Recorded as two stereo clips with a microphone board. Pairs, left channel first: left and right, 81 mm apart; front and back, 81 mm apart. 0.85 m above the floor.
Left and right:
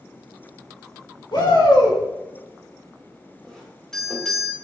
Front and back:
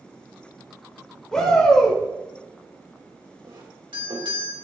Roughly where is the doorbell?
Behind.